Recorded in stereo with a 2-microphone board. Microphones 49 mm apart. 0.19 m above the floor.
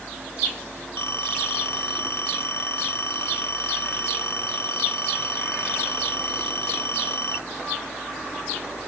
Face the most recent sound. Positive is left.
turn(degrees=60)  # may be behind; listen again after turning